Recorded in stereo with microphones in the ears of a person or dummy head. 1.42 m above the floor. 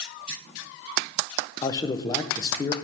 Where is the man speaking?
20° left (ahead or behind), 0.7 m.